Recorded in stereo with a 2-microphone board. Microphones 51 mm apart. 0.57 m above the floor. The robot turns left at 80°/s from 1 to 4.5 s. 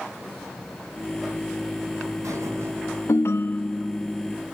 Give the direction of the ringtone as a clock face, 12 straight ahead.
10 o'clock.